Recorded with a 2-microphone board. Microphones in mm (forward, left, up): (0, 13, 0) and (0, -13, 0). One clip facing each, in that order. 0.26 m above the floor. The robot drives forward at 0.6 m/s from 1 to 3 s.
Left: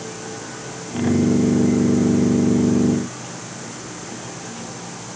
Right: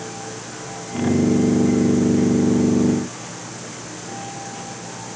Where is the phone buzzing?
No phone buzzing in this recording.